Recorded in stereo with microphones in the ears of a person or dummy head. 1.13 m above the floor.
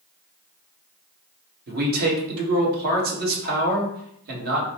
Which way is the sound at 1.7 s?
55° right (ahead or behind).